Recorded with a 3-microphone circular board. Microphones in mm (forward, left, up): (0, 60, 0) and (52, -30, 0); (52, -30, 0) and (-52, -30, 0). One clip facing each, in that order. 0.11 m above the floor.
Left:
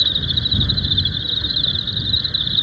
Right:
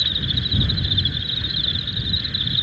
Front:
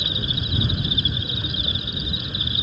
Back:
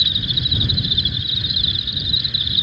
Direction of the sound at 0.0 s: 50° left.